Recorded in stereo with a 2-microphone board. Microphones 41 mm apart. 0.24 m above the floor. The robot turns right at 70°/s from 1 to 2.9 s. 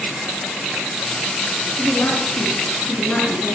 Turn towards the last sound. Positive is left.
turn(degrees=140)